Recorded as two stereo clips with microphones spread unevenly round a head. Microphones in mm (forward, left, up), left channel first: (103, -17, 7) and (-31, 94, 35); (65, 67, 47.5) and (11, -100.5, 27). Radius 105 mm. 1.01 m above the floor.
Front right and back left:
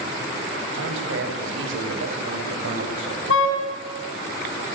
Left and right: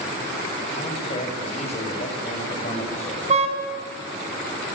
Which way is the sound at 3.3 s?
55° right.